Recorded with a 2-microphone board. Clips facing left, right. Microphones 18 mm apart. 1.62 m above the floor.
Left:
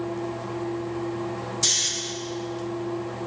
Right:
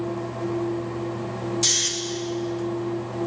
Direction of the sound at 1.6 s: 15° right (ahead or behind).